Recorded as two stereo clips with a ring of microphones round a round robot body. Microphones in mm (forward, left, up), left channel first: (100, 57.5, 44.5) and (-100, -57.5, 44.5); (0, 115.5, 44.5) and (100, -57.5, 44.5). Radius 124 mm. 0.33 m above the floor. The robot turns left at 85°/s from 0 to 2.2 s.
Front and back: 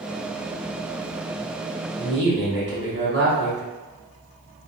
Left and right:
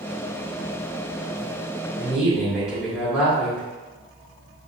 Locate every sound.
2.0 s a woman speaking: 130° right, 1.6 m; by 3.6 s 150° right, 1.6 m